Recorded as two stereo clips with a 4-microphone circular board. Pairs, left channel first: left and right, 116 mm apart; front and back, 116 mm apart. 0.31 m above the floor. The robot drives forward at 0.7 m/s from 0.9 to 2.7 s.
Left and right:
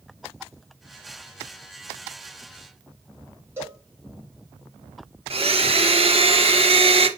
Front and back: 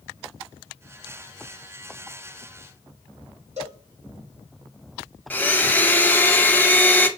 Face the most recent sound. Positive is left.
turn(degrees=-75)